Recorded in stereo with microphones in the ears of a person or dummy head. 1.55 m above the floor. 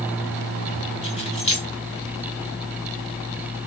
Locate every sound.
1.0 s keys jangling: 30° left (ahead or behind), 2 m